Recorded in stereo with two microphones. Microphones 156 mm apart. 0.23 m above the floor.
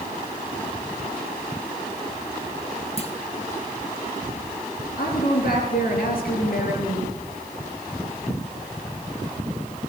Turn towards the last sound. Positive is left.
turn(degrees=70)  # may be behind; listen again after turning